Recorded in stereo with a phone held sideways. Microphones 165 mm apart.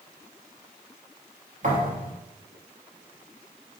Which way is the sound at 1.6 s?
50° right (ahead or behind).